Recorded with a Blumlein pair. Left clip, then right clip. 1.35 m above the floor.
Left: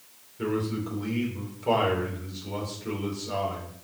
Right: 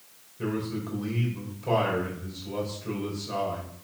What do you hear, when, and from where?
0.4 s a man speaking: 45° left, 4 m